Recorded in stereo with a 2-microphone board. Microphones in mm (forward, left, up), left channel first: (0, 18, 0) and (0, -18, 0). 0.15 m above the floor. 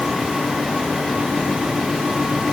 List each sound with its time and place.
Only background noise.